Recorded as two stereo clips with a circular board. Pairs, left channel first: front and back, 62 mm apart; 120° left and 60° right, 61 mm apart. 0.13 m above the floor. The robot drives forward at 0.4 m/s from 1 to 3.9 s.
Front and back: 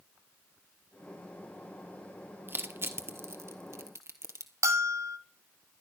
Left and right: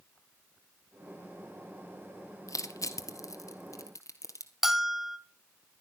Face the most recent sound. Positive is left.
turn(degrees=-145)